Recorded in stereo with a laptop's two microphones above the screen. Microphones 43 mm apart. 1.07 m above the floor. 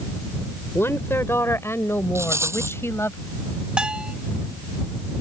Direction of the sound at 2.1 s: 80° right.